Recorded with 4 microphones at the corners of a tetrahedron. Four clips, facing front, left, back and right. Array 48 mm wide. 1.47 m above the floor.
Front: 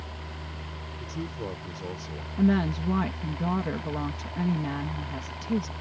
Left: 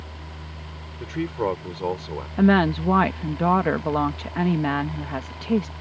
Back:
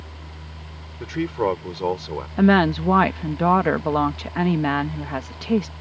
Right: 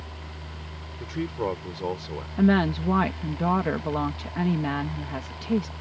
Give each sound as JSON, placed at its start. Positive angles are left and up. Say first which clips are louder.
{"t": 1.0, "sound": "a man speaking", "louder": "left 3 dB, back 13 dB", "azimuth_deg": 165}
{"t": 2.4, "sound": "a woman speaking", "louder": "left 3 dB, back 8 dB", "azimuth_deg": 160}